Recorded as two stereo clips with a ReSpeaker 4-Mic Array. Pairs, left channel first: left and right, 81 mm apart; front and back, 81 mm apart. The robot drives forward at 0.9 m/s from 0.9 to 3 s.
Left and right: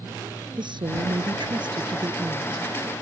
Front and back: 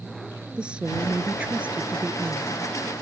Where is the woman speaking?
105° right; by 2.7 s 115° right.